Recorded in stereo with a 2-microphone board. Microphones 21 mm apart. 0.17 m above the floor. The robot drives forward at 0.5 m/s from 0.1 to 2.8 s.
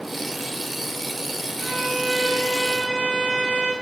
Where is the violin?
70° right (ahead or behind), 1.0 m; by 3.7 s 50° right (ahead or behind), 1.3 m.